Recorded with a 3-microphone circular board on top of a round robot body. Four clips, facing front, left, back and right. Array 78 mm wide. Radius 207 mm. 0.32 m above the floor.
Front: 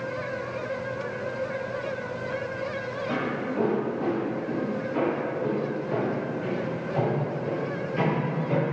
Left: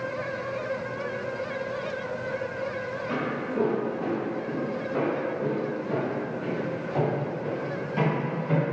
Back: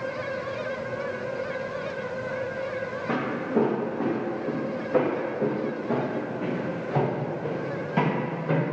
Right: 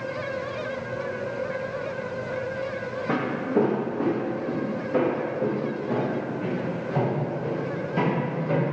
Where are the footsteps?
120° right, 1.6 m; by 8.6 s straight behind, 5 m.